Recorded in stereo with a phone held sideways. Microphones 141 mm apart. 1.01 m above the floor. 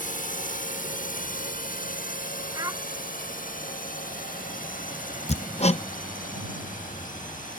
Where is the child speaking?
25° right (ahead or behind).